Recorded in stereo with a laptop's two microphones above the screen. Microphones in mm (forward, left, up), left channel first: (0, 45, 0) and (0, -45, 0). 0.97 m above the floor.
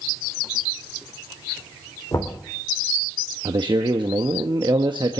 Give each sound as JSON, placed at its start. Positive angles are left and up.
{"t": 2.1, "sound": "knocking", "side_deg": 45, "distance_m": 3.0}
{"t": 3.5, "sound": "a man speaking", "side_deg": -60, "distance_m": 1.1}